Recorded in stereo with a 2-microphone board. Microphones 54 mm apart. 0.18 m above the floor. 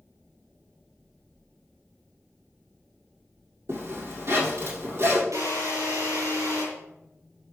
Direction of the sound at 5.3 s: 70° right (ahead or behind).